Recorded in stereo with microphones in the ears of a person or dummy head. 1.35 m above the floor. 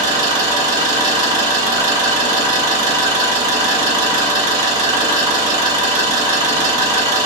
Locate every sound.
0.0 s an engine running: 20° right (ahead or behind), 0.7 m